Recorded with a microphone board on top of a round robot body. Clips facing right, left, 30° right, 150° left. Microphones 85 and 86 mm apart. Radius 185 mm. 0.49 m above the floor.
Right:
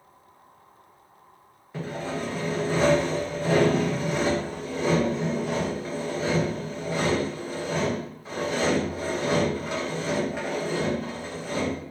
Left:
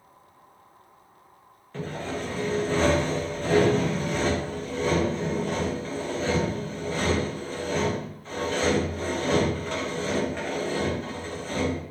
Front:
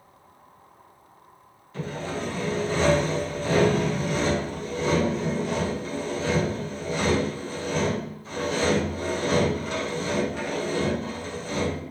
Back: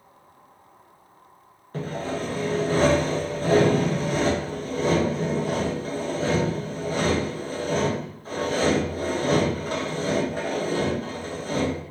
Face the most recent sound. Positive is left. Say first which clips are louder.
# right 1 dB, back 2 dB
turn(degrees=-170)